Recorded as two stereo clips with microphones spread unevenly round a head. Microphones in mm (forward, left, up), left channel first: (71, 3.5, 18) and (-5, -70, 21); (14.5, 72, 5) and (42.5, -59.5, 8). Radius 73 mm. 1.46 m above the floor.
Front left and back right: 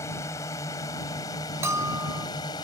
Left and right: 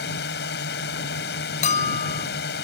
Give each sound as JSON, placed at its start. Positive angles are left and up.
{"t": 0.0, "sound": "a drone", "azimuth_deg": 115}
{"t": 1.6, "sound": "a bell", "azimuth_deg": 150}